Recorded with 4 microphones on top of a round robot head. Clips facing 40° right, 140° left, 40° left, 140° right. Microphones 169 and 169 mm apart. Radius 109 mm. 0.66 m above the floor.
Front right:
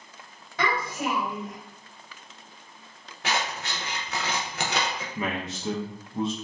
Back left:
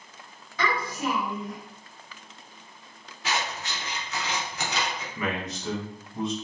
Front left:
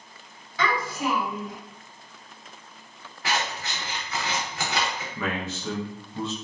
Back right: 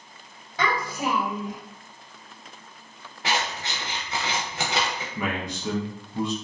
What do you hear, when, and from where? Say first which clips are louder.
0.6 s a child speaking: front right 1 dB, even; 85° right, 1.4 m
3.2 s scissors: front right 1 dB, back right 1 dB; 75° right, 0.5 m
5.2 s a man speaking: back left 1 dB, back right 1 dB; 75° right, 0.7 m